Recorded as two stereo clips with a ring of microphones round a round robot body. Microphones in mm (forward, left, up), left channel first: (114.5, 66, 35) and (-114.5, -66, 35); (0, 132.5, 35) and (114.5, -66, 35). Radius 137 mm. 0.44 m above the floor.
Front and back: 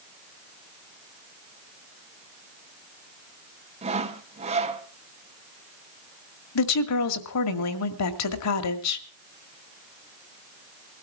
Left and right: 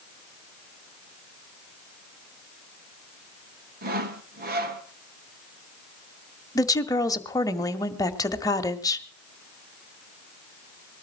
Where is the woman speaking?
45° left, 2.0 m.